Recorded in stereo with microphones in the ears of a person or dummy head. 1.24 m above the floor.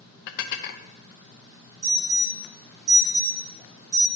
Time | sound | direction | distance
0.3 | dishes clattering | 55° left (ahead or behind) | 0.5 m
1.8 | an alarm | 20° right (ahead or behind) | 1.6 m